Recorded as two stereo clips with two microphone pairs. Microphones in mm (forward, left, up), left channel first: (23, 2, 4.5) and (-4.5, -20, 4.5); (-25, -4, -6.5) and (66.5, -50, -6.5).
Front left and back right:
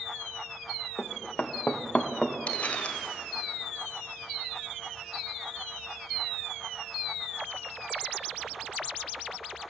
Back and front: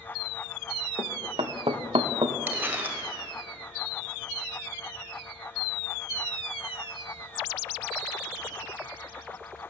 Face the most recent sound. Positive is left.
turn(degrees=35)